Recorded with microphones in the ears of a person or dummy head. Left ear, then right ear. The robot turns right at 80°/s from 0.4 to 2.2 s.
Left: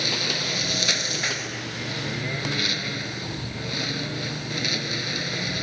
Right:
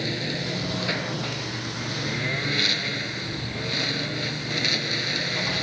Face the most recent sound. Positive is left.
turn(degrees=-170)